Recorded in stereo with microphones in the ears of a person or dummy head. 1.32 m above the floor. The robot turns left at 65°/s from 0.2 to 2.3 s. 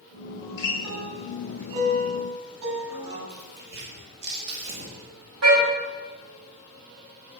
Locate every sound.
0.4 s a guitar: 40° left, 7.5 m; by 3.2 s 85° right, 7.5 m
3.3 s tearing paper: 60° right (ahead or behind), 5.5 m
5.4 s a car horn: 85° right, 5.5 m